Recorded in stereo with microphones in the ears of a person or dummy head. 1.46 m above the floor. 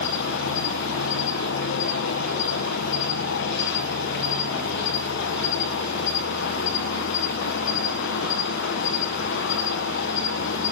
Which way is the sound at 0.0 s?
60° left (ahead or behind).